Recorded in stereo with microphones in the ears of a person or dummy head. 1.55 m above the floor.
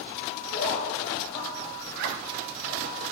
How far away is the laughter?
About 5.5 m.